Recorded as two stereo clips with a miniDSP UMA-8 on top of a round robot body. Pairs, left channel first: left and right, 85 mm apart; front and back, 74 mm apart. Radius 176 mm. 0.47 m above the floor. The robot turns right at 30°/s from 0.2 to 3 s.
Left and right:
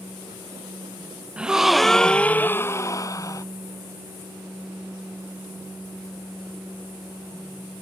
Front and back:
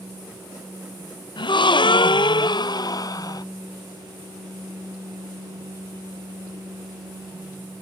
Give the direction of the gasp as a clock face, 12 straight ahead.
12 o'clock.